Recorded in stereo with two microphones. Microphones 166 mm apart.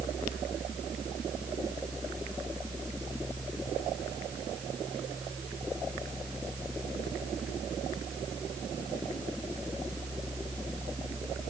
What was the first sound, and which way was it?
Only background noise.